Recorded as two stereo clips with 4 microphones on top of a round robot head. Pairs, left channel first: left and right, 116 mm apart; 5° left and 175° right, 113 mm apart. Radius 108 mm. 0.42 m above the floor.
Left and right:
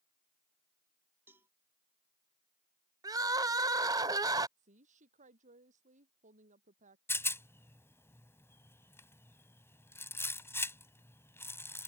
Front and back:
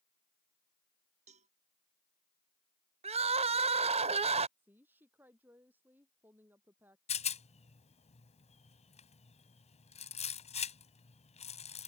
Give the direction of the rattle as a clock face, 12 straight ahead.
11 o'clock.